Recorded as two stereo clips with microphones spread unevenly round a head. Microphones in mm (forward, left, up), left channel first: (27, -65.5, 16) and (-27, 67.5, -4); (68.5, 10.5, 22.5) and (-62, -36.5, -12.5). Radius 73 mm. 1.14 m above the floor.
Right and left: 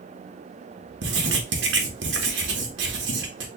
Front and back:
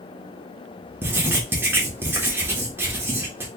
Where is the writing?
120° left, 1.0 m.